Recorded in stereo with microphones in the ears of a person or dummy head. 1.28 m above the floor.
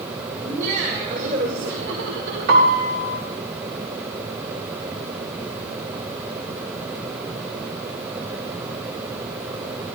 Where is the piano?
60° right (ahead or behind), 4.5 m.